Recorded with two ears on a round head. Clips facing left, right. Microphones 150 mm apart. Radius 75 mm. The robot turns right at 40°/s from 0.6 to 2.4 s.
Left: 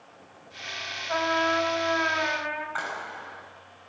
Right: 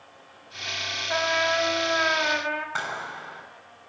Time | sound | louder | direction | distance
1.1 | a trumpet | even | 170° right | 4 m
2.8 | a clap | right 1 dB | 50° right (ahead or behind) | 9.5 m